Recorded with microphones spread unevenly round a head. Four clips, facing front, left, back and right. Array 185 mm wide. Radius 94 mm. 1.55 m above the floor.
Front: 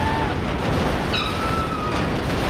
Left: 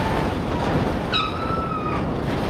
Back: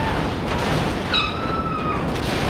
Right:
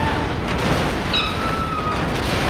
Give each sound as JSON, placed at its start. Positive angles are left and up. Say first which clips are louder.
{"t": 1.1, "sound": "a cat meowing", "louder": "right 1 dB, even", "azimuth_deg": 140, "distance_m": 2.0}